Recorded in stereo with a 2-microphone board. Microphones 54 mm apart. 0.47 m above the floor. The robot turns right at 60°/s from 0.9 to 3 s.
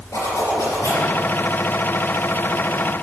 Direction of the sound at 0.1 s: 80° left.